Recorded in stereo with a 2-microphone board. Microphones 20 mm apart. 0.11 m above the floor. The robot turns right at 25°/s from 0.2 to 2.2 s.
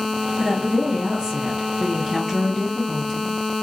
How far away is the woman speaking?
About 2 m.